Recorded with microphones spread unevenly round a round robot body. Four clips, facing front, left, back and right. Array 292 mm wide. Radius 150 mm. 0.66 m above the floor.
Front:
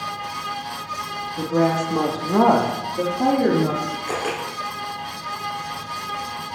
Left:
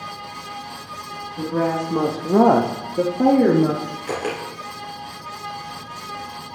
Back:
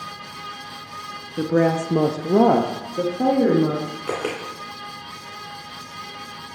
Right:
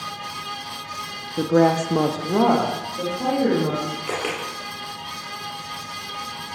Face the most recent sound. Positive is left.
turn(degrees=180)